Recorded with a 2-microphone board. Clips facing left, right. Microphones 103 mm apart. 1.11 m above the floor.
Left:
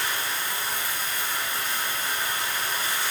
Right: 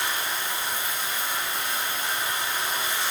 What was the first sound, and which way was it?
Running water, 25° right (ahead or behind).